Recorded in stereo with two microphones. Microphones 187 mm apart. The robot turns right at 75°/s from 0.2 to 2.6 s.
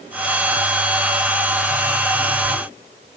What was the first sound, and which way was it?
Only background noise.